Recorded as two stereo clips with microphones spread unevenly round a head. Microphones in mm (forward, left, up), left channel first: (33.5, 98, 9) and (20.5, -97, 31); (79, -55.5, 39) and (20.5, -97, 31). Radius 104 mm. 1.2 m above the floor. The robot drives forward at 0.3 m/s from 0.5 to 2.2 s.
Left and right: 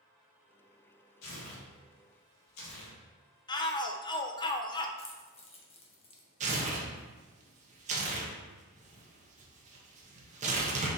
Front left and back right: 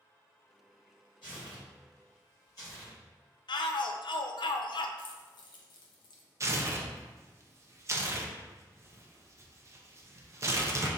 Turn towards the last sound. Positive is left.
turn(degrees=-140)